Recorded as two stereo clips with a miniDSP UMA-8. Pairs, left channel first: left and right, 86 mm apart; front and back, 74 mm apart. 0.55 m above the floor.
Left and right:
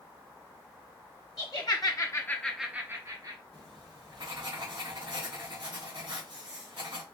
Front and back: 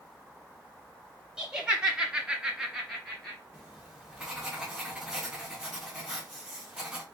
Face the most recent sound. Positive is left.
turn(degrees=-95)